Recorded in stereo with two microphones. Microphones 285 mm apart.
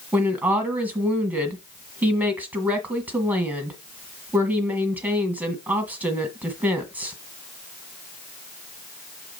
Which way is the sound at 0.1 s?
5° right (ahead or behind).